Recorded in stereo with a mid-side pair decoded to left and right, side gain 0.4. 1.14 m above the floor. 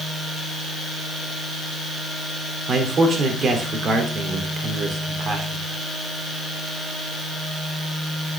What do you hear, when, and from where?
2.7 s a man speaking: 55° right, 3 m